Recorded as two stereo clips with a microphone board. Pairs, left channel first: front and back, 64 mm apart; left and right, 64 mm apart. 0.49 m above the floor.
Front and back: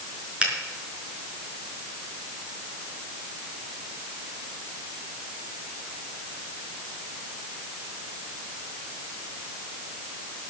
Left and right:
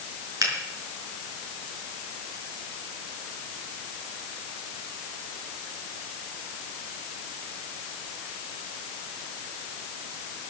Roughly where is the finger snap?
Right.